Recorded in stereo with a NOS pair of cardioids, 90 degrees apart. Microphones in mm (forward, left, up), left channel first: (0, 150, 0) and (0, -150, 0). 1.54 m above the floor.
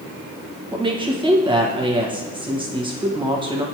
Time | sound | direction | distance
0.7 | a woman speaking | 15° right | 1.5 m